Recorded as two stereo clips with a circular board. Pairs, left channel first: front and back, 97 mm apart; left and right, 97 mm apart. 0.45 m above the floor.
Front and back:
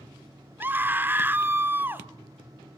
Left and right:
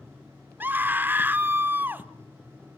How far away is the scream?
About 1.1 m.